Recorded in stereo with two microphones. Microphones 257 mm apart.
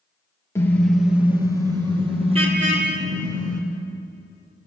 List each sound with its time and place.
0.6 s a car horn: 10° left (ahead or behind), 2.5 m; by 3.6 s 35° right (ahead or behind), 5.5 m